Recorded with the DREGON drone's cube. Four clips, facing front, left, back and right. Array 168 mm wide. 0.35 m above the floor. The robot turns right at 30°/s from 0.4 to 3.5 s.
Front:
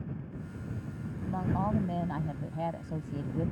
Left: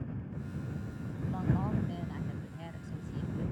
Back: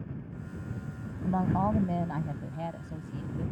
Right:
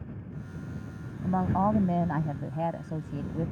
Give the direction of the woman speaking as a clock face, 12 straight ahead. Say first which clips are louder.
Right 8 dB, back 4 dB; 4 o'clock.